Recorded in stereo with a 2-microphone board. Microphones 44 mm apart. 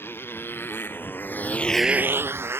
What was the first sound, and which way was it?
A motorcycle, 60° left (ahead or behind).